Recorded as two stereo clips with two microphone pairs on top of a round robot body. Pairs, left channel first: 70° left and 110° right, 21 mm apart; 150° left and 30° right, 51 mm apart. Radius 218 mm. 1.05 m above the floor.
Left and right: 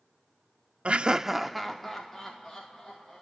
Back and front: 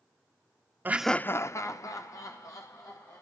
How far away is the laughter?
About 0.5 m.